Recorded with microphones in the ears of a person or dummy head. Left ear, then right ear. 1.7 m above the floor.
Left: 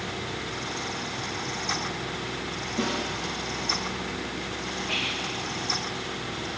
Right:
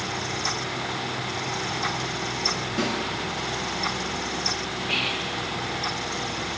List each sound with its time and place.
2.8 s a snare drum: 45° right (ahead or behind), 5 m
4.9 s whispering: 10° right (ahead or behind), 1.6 m